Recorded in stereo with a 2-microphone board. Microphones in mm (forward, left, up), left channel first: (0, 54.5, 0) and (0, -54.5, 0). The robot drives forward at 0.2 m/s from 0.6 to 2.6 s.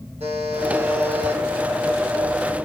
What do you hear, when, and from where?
0.2 s a buzzer: 70° right (ahead or behind), 4.5 m